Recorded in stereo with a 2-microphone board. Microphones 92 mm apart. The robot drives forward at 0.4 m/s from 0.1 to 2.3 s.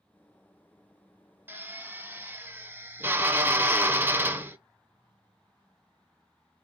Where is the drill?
20° right (ahead or behind), 0.5 m.